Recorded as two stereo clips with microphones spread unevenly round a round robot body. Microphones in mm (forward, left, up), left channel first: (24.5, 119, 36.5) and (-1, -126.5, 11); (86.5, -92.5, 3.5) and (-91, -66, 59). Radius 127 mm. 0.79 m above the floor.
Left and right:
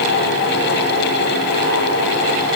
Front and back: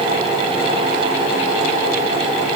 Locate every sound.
Only background noise.